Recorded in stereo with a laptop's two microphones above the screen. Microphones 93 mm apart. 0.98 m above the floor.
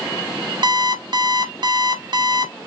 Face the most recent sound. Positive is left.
turn(degrees=-55)  # may be behind; listen again after turning